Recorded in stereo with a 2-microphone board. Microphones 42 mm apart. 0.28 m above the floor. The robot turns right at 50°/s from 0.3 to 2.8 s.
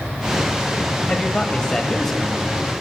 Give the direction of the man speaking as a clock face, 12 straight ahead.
8 o'clock.